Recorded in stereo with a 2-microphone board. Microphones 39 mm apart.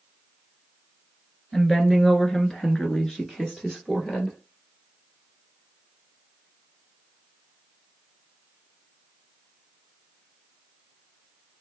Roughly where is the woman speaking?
Centre.